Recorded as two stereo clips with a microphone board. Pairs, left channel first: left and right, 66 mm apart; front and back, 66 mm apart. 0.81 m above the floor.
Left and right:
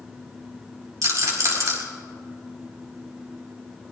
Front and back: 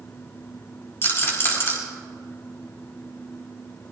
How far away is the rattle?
About 4.5 m.